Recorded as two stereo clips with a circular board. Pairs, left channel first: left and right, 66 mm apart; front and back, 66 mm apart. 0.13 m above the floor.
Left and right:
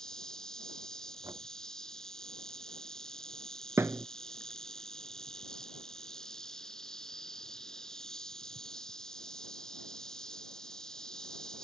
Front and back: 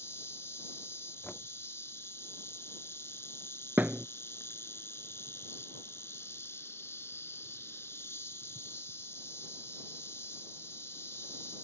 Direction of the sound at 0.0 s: 15° left.